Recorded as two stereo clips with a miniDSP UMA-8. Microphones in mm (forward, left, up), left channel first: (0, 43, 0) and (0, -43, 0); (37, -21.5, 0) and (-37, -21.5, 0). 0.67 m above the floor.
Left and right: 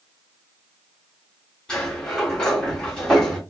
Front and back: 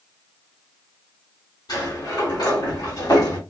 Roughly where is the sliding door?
Ahead.